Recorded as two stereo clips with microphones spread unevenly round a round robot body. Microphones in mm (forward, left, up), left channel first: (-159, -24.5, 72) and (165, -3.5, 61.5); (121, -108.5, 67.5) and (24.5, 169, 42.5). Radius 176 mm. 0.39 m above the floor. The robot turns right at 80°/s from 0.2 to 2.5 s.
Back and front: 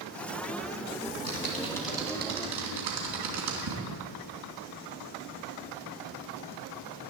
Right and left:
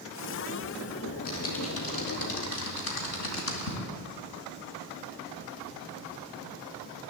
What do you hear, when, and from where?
1.1 s typing on a keyboard: 150° right, 3 m; by 3.8 s 35° right, 3 m